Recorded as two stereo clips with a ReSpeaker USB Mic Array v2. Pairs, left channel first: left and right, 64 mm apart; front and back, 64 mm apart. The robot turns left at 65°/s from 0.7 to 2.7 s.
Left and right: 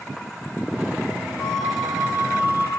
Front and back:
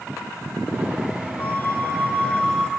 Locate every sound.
1.4 s a flute: 15° left, 1.3 m; by 2.7 s 70° right, 1.3 m